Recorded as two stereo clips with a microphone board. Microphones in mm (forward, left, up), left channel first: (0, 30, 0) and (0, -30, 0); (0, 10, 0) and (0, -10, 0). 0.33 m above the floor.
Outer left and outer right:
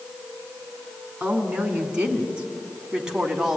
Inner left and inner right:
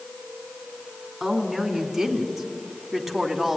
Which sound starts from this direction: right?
A woman speaking, at 1.2 s.